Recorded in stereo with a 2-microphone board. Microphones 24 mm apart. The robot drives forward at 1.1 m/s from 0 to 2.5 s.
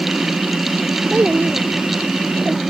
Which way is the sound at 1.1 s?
75° right (ahead or behind).